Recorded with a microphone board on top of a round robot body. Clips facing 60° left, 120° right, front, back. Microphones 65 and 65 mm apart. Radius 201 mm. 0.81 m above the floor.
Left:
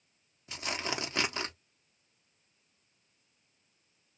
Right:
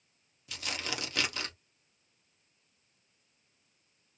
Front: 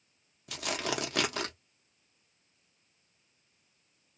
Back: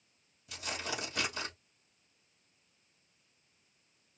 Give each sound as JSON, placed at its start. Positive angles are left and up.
{"t": 0.5, "sound": "tearing paper", "azimuth_deg": 0, "distance_m": 1.2}